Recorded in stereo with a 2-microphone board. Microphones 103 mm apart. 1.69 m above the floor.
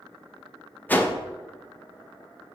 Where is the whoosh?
15° left (ahead or behind), 0.6 m.